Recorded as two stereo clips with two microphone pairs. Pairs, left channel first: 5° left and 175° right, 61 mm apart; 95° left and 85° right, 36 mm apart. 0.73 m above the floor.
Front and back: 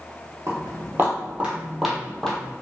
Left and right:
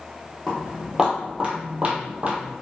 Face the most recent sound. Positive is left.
turn(degrees=-55)